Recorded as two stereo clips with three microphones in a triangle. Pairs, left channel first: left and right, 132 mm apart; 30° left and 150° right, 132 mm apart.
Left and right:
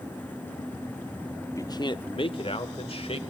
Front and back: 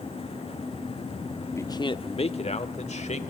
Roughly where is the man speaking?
Left.